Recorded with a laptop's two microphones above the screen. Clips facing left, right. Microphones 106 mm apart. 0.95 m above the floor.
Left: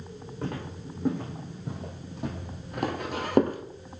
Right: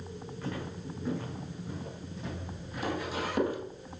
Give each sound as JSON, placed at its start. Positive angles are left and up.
{"t": 0.4, "sound": "footsteps", "side_deg": 65, "distance_m": 3.5}